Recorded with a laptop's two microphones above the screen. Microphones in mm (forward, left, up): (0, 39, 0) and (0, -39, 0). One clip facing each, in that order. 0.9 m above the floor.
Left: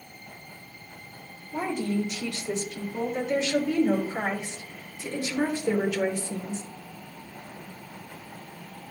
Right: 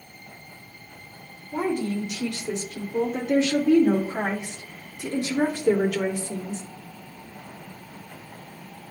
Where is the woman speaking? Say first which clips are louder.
Right 2 dB; 60° right (ahead or behind), 2.5 m; by 6.6 s 55° right (ahead or behind), 2.5 m.